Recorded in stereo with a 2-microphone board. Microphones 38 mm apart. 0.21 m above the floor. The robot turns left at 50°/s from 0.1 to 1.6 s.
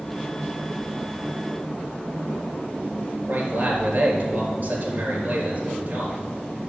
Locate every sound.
3.3 s a man speaking: 55° right (ahead or behind), 4.5 m